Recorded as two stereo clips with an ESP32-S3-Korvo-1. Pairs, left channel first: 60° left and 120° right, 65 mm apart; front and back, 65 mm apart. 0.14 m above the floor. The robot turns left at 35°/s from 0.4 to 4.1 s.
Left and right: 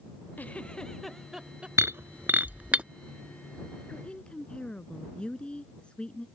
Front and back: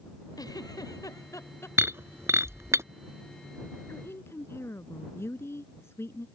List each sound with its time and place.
0.4 s a giggle: 5° right; by 1.7 s 50° right
1.8 s breaking glass: 145° right; by 2.8 s 175° left
3.9 s a woman speaking: straight ahead; by 6.3 s 5° right